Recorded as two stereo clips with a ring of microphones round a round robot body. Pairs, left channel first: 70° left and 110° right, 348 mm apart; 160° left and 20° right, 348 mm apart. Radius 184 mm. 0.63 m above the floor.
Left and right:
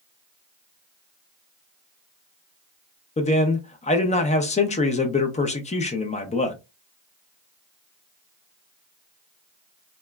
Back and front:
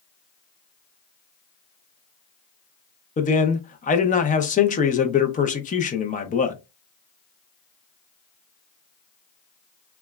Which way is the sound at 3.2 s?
115° left.